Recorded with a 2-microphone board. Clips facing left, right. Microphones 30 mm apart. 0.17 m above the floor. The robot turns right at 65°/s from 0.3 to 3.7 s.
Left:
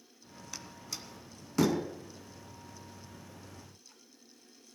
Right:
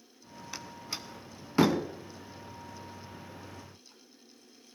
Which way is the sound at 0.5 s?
20° right (ahead or behind).